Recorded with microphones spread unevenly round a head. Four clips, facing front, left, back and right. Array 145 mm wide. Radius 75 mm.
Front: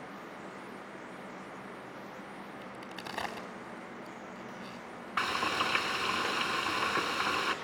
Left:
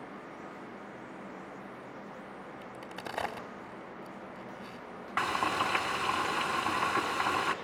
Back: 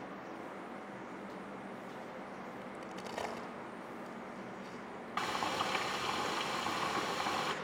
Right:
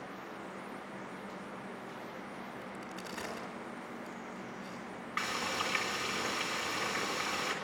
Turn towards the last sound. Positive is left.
turn(degrees=100)